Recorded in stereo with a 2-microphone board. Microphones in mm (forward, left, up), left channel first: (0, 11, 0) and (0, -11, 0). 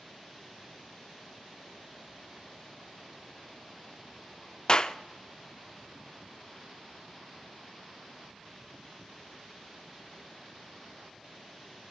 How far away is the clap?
About 0.5 m.